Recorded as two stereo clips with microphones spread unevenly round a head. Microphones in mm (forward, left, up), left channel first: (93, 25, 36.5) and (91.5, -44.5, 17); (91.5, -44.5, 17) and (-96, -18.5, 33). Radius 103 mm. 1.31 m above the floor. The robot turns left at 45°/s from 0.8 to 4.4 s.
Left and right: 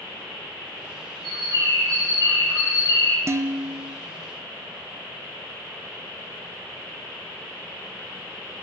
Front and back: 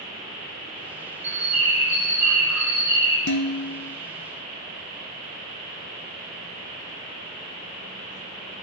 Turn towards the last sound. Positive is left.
turn(degrees=-85)